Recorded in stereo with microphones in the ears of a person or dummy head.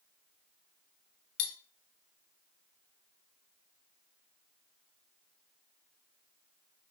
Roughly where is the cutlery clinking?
Left.